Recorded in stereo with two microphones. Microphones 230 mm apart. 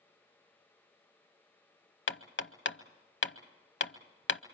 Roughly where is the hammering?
Left.